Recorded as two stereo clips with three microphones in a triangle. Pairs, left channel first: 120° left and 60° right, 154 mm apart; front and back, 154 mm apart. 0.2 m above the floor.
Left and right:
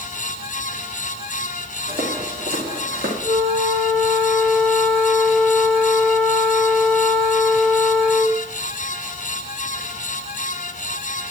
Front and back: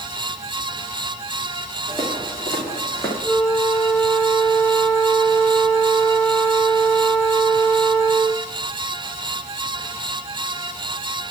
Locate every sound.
1.9 s footsteps: 65° right, 7 m; by 3.1 s 70° right, 6 m
3.2 s a flute: 100° right, 6 m